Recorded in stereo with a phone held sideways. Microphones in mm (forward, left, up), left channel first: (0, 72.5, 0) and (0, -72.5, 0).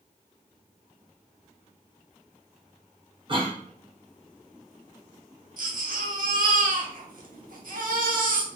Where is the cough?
35° right (ahead or behind), 1.3 m.